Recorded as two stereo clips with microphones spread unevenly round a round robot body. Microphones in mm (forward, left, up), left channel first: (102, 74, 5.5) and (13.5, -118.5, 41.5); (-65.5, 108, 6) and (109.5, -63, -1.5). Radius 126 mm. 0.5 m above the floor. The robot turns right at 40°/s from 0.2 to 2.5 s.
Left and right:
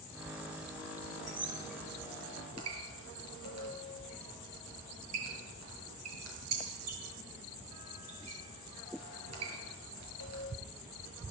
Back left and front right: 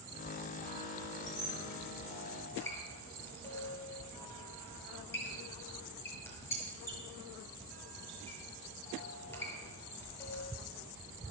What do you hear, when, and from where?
1.3 s a squeak: 165° left, 7.5 m; by 10.4 s 145° right, 7.5 m